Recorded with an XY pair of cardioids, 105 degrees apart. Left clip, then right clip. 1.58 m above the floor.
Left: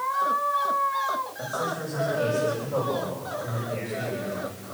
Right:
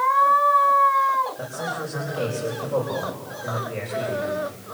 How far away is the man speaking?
About 6 m.